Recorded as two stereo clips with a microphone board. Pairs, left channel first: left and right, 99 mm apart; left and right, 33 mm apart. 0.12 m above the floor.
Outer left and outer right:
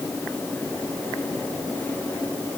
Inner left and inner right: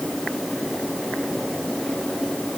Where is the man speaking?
No man speaking in this recording.